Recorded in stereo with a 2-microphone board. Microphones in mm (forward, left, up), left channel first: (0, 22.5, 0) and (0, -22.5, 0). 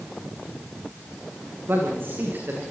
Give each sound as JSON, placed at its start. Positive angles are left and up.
{"t": 1.7, "sound": "a man speaking", "side_deg": -50, "distance_m": 10.0}